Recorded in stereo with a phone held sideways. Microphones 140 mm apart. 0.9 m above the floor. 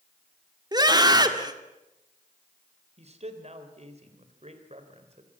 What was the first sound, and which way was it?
A scream, 30° right (ahead or behind).